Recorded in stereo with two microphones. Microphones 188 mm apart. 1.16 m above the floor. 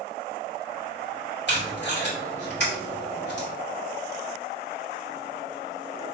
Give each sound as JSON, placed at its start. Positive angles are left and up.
{"t": 1.5, "sound": "tape being pulled", "side_deg": 70, "distance_m": 2.0}